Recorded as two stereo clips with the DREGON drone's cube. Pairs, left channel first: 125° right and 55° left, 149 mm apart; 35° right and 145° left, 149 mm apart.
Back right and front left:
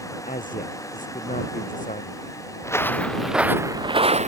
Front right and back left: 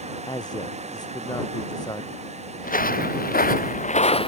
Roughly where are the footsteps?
Ahead right.